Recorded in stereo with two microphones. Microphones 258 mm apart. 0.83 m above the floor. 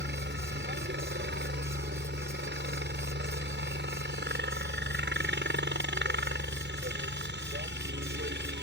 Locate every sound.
0.0 s a helicopter: 40° right (ahead or behind)